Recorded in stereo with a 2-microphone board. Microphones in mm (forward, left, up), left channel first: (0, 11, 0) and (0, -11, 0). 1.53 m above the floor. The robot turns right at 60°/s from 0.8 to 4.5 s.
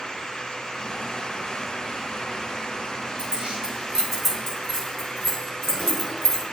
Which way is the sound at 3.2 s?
60° right (ahead or behind).